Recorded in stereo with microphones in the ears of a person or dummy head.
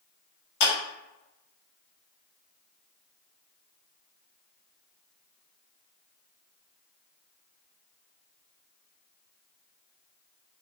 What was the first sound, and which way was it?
A clap, 80° left.